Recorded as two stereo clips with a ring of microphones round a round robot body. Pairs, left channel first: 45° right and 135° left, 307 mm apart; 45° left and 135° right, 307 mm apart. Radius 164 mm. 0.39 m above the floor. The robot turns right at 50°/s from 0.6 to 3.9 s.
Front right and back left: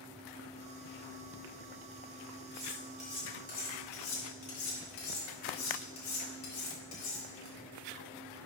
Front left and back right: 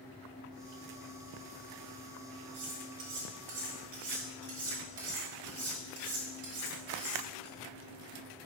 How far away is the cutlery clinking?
About 3 m.